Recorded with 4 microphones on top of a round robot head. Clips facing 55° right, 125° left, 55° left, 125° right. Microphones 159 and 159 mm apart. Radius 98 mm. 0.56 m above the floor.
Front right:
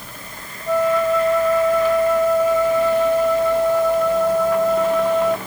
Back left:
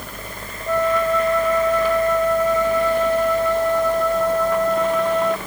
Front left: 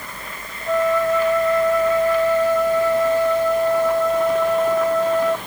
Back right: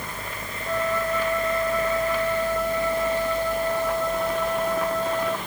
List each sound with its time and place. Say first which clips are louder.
0.7 s a flute: front right 2 dB, front left 7 dB; 30° left